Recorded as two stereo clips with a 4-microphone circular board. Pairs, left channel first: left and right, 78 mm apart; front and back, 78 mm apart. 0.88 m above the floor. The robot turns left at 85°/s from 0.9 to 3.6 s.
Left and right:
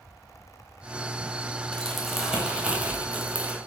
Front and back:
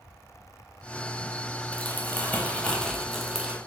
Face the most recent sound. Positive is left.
turn(degrees=-130)